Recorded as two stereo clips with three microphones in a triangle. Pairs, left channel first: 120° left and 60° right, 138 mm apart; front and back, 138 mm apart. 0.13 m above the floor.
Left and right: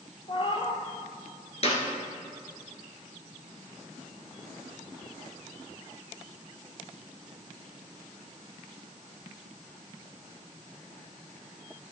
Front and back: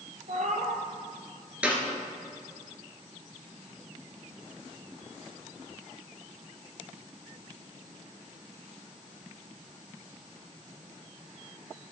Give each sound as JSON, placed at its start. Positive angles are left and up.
{"t": 0.3, "sound": "a cat meowing", "azimuth_deg": 165, "distance_m": 1.0}
{"t": 1.6, "sound": "a clap", "azimuth_deg": 100, "distance_m": 1.7}